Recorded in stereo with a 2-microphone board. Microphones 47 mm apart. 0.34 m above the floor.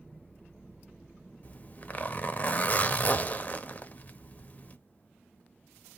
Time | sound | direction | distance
1.4 | a zipper | 35° left (ahead or behind) | 0.7 m